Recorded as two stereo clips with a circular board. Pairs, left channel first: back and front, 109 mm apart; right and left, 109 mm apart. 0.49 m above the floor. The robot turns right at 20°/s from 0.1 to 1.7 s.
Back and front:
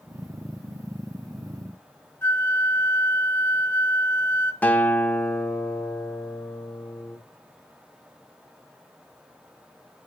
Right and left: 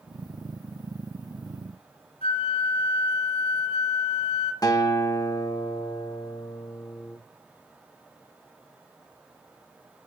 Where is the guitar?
115° right, 0.9 m.